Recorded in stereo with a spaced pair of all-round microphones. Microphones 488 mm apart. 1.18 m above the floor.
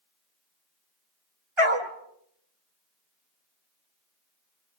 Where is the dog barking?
75° right (ahead or behind), 2 m.